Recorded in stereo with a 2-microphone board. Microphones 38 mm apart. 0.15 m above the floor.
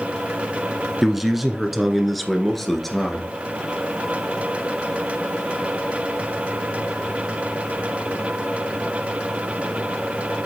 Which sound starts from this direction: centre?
A man speaking, at 1.0 s.